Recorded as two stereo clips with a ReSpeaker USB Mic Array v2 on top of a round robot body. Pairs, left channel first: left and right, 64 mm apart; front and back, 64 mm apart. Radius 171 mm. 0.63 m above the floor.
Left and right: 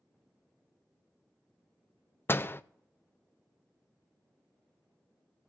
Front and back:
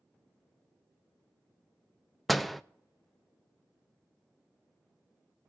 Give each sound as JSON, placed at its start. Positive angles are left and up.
{"t": 2.3, "sound": "a door slam", "azimuth_deg": 90, "distance_m": 0.7}